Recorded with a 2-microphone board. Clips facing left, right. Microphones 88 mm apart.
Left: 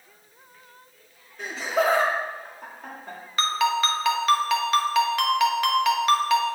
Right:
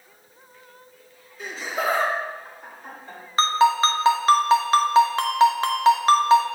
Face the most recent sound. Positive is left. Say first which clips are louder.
# right 5 dB
turn(degrees=-35)  # may be behind; listen again after turning